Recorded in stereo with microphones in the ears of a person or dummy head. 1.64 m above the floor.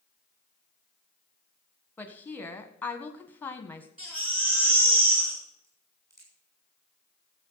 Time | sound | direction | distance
2.0 | a woman speaking | 15° left (ahead or behind) | 1.5 m
4.0 | a baby crying | 5° right (ahead or behind) | 5 m
5.6 | a crack | 15° right (ahead or behind) | 6 m